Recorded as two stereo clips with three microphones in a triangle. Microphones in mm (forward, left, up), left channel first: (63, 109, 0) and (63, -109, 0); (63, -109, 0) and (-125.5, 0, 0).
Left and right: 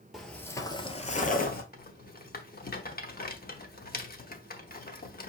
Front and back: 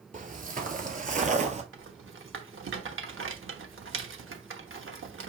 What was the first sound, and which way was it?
Footsteps, straight behind.